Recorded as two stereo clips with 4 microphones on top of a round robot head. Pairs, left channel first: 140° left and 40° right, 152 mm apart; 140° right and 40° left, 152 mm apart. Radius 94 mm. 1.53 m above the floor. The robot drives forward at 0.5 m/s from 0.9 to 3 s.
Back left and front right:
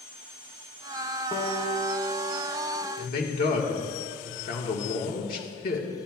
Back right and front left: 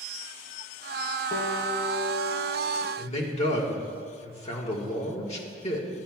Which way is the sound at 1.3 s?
155° right.